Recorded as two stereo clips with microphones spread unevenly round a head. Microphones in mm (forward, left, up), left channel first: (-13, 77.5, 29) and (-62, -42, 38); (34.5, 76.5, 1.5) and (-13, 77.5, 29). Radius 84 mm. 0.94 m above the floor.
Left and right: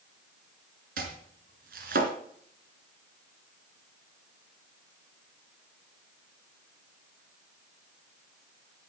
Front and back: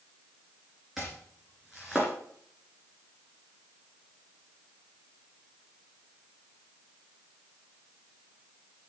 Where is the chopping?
105° right, 2 m.